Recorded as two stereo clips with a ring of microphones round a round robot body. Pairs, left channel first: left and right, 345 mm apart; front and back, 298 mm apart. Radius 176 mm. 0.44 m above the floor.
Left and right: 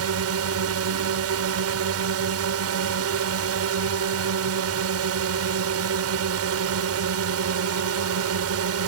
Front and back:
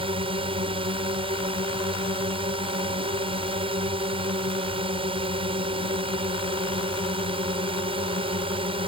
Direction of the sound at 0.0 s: 115° right.